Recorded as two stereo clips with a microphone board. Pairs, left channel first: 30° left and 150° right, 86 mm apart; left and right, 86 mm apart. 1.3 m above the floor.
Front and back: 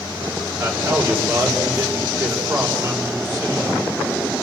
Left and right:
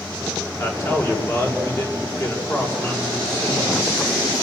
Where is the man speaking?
145° left, 6 m.